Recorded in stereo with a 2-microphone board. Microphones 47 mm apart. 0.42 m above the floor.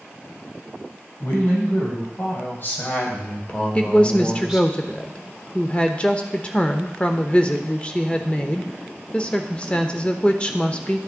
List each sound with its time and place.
1.2 s a woman speaking: 60° left (ahead or behind), 4 m; by 4.7 s 20° right (ahead or behind), 1.3 m
3.8 s a woman speaking: 25° left (ahead or behind), 0.8 m